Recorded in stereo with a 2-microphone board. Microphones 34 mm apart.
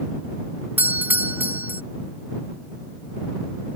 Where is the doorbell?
60° right (ahead or behind).